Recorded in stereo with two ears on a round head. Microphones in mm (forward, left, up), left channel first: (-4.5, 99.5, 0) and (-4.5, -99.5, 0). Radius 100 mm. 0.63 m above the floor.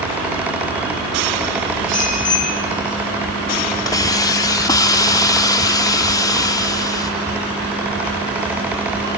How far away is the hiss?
About 0.8 m.